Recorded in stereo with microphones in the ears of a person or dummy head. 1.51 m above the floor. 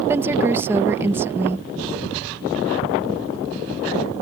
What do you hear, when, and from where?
0.1 s a woman speaking: 15° right (ahead or behind)